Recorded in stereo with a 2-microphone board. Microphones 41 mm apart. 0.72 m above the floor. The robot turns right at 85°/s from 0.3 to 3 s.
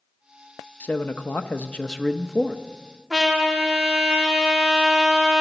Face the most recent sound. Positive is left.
turn(degrees=-10)  # may be behind; listen again after turning